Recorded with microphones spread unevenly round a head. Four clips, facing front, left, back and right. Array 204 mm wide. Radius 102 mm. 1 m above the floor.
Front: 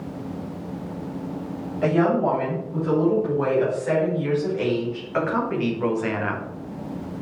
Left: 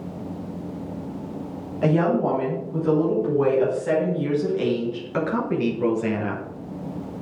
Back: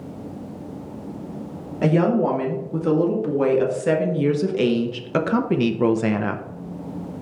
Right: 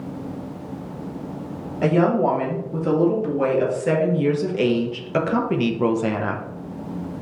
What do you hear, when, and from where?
1.8 s a woman speaking: 160° right, 3 m; by 6.4 s 170° left, 0.6 m